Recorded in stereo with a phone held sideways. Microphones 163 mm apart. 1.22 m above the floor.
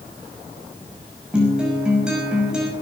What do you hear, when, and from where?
1.3 s a guitar: 5° right (ahead or behind), 5.5 m